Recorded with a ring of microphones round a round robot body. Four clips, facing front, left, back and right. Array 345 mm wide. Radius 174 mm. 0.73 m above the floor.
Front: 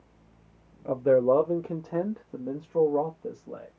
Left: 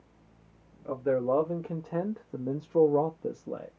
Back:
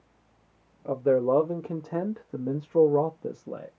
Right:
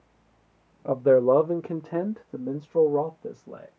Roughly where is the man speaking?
Right.